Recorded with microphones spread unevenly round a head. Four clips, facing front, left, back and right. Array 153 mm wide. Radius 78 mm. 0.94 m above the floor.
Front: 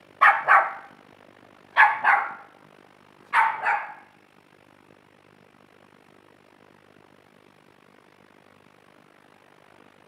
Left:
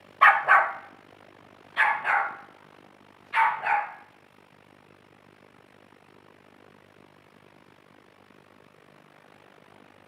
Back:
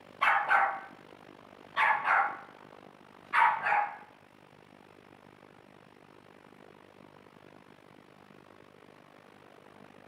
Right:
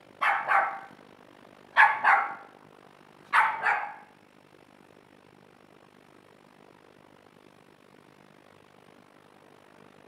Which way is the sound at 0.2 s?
45° left.